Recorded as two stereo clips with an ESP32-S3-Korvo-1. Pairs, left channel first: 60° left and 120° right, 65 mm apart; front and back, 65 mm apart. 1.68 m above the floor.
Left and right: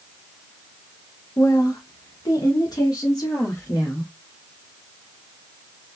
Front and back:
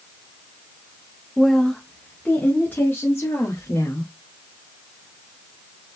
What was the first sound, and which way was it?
A woman speaking, 95° left.